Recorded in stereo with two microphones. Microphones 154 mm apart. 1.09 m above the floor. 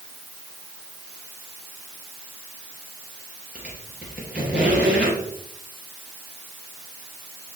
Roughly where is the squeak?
Centre.